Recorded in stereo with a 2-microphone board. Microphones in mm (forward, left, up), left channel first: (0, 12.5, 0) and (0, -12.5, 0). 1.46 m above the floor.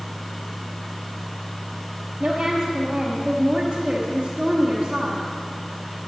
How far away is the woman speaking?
About 1.2 m.